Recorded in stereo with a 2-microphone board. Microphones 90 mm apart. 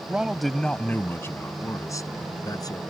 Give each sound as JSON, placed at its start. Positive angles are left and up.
{"t": 0.1, "sound": "a man speaking", "side_deg": -15}